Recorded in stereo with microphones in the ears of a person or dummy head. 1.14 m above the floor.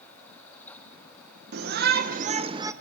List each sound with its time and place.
1.5 s a shout: 55° right (ahead or behind), 1.1 m; by 2.7 s 15° right (ahead or behind), 0.7 m